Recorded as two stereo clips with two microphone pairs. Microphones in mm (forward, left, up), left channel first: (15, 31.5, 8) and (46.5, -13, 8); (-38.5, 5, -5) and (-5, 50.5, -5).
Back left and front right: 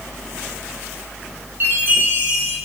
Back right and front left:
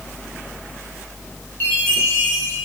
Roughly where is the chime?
Right.